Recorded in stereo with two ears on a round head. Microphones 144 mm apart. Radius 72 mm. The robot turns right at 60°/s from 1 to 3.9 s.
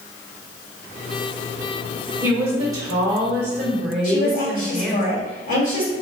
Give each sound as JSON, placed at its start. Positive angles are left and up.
{"t": 2.2, "sound": "a woman speaking", "side_deg": -15, "distance_m": 1.3}
{"t": 4.0, "sound": "a woman speaking", "side_deg": 55, "distance_m": 1.9}